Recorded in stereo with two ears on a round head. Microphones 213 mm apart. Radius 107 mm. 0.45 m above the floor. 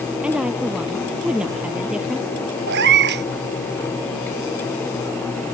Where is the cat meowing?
50° right (ahead or behind).